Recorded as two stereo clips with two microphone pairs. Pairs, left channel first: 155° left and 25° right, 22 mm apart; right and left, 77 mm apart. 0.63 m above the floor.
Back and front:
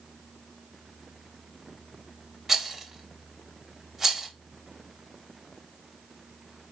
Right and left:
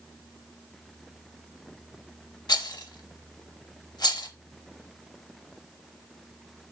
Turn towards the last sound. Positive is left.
turn(degrees=-100)